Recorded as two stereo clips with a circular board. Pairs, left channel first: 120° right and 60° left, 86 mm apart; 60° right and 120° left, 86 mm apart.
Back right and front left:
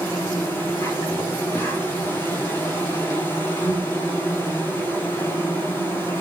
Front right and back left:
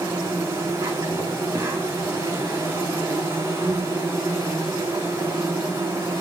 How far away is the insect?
About 4 m.